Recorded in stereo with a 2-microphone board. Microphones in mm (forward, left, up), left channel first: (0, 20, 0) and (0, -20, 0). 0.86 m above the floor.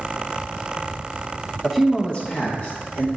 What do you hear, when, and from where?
1.6 s a man speaking: 10° right (ahead or behind), 0.8 m; by 3.1 s 60° left (ahead or behind), 1.7 m